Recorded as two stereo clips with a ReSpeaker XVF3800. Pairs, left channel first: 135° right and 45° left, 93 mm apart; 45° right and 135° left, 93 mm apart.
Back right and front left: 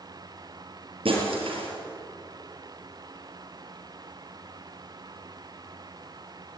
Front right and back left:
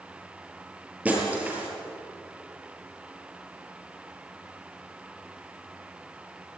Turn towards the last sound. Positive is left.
turn(degrees=60)